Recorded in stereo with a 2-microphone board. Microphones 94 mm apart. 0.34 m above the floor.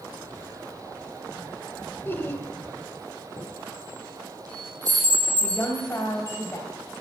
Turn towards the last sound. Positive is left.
turn(degrees=30)  # may be behind; listen again after turning